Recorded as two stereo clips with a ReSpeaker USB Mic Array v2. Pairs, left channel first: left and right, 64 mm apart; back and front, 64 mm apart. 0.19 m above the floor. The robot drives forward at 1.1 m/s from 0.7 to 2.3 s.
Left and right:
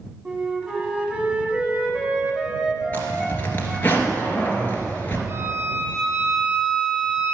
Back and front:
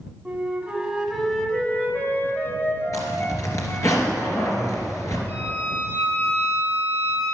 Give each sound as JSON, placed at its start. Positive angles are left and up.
{"t": 0.2, "sound": "a flute", "azimuth_deg": -40, "distance_m": 1.6}
{"t": 2.9, "sound": "a zipper", "azimuth_deg": 150, "distance_m": 2.5}
{"t": 5.3, "sound": "a violin", "azimuth_deg": -130, "distance_m": 4.0}